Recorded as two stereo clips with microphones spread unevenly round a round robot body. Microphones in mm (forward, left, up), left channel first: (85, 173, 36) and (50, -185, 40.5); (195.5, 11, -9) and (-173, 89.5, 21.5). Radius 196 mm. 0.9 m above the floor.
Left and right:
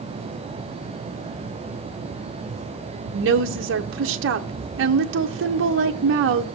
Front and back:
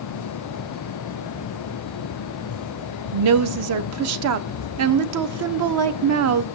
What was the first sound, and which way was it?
A woman speaking, 145° right.